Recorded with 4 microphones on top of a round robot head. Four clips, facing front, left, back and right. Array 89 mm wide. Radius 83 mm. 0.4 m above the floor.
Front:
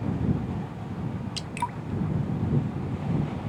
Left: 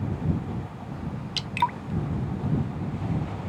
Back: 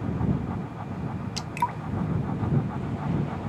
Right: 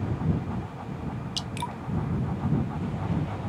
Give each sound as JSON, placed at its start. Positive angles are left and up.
{"t": 1.4, "sound": "dripping", "azimuth_deg": 115}